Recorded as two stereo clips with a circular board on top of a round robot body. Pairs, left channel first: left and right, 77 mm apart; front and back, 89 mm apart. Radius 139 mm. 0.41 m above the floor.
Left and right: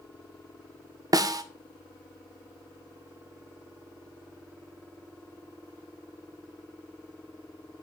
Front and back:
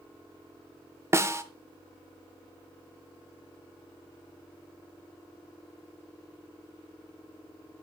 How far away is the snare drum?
About 0.8 m.